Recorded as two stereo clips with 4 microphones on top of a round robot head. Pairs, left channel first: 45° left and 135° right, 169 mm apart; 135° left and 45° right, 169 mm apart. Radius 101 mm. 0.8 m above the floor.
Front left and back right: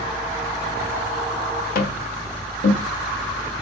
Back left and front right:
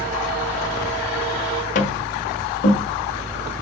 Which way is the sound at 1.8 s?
85° left.